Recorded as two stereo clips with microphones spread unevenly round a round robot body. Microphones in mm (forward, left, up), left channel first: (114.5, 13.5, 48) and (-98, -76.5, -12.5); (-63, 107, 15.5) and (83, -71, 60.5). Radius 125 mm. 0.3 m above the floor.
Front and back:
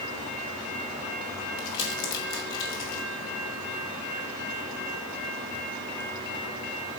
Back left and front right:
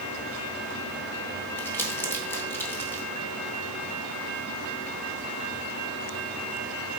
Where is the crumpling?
60° left, 1.7 m.